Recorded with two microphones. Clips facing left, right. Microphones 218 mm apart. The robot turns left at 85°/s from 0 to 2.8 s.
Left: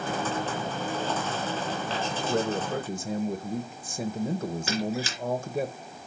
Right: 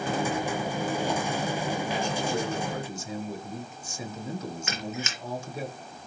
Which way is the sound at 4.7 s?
35° left (ahead or behind).